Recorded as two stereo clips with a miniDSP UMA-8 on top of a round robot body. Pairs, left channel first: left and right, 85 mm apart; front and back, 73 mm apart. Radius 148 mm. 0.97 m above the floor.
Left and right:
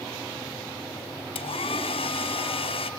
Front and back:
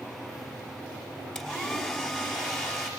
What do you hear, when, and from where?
1.4 s a hair dryer: 85° left, 3 m